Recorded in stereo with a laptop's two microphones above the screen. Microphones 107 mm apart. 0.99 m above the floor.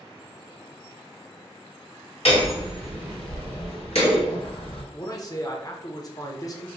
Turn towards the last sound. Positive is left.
turn(degrees=35)  # may be behind; listen again after turning